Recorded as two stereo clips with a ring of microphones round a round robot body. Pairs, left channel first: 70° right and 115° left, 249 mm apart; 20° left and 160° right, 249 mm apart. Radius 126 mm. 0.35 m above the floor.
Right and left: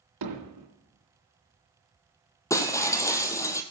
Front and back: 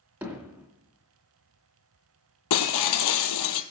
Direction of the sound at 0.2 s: 120° left.